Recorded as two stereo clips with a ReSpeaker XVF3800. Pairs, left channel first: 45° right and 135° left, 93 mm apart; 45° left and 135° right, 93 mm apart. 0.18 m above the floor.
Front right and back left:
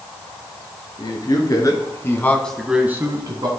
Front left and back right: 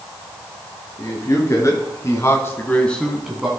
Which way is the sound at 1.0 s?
5° right.